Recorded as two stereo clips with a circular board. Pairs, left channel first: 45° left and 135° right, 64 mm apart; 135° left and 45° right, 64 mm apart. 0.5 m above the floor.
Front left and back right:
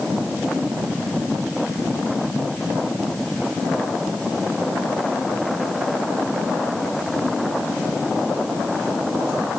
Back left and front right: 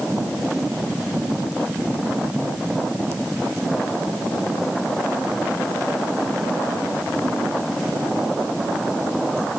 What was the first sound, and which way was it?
Only background noise.